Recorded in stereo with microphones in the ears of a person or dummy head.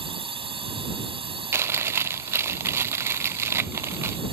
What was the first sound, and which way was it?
A drone, 35° right (ahead or behind).